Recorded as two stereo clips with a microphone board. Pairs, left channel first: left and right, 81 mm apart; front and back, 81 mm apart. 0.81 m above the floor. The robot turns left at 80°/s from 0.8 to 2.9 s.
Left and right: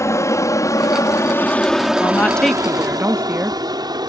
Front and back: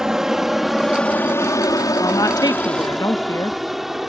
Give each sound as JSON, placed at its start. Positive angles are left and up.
{"t": 0.0, "sound": "an aircraft", "azimuth_deg": 100}
{"t": 2.0, "sound": "a woman speaking", "azimuth_deg": 40}